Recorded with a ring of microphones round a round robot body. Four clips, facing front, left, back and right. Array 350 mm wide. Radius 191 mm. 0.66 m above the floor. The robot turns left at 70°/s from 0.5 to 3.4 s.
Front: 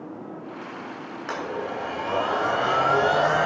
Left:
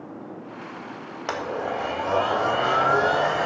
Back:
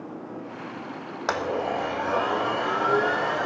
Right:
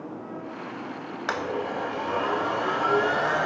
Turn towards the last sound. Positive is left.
turn(degrees=10)